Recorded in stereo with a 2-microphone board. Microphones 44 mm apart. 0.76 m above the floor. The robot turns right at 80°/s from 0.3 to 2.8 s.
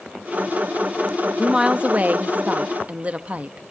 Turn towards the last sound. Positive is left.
turn(degrees=-55)